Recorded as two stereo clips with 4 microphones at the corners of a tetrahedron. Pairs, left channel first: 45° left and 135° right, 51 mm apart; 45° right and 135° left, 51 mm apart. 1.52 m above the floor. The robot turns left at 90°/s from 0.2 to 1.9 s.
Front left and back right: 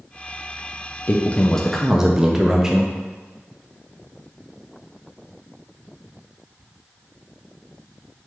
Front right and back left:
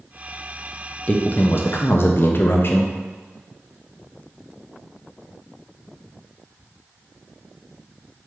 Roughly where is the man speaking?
Ahead.